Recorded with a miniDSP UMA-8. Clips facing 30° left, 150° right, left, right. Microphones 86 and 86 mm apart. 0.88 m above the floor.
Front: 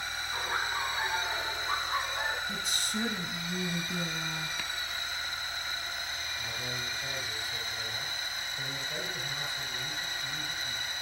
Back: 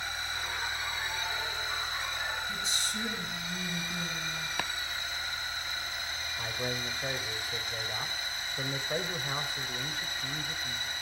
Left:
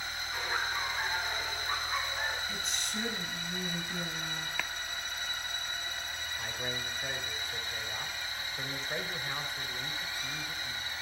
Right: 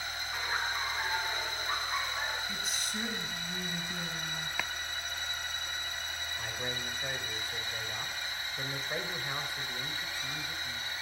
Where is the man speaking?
175° right, 4.5 m.